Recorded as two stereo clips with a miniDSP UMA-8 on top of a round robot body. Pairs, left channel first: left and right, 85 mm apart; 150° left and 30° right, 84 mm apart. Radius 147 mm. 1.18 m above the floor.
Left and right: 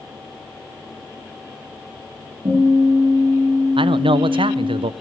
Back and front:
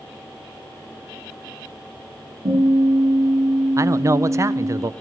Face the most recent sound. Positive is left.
turn(degrees=-85)